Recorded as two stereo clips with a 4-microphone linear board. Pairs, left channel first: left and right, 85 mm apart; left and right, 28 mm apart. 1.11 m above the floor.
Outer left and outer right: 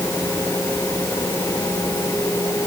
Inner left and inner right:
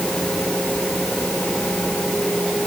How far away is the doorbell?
I don't hear a doorbell.